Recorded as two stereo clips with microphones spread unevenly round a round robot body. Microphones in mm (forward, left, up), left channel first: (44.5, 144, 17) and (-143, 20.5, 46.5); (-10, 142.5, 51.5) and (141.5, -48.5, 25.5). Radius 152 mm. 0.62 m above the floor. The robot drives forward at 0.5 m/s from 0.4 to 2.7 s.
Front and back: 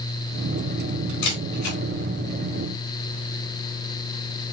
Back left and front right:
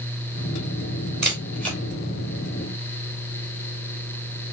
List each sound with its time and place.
1.2 s a camera shutter: 40° left, 3.5 m; by 1.8 s 45° left, 3 m